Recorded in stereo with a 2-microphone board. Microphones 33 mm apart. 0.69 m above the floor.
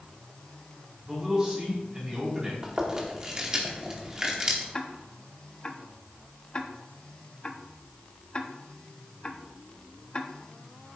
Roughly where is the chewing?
Right.